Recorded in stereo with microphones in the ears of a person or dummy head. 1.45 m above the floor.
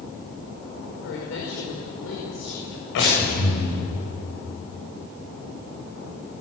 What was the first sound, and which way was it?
A woman speaking, 75° left (ahead or behind).